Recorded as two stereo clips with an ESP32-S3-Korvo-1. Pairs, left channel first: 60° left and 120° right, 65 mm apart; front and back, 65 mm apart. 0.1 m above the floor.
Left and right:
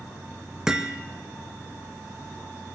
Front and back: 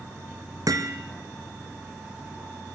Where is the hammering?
160° left, 2 m.